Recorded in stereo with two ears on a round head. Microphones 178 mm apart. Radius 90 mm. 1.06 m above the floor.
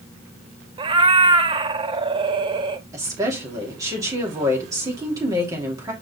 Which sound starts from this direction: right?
A cat meowing, at 0.8 s.